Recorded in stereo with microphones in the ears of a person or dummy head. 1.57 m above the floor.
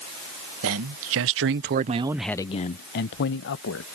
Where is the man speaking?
75° right (ahead or behind); by 3.9 s 70° left (ahead or behind).